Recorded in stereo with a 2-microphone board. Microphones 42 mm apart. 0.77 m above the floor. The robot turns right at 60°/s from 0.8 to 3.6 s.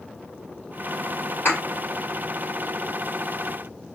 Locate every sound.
1.4 s a thud: 55° left (ahead or behind), 4 m; by 1.6 s 45° left (ahead or behind), 4 m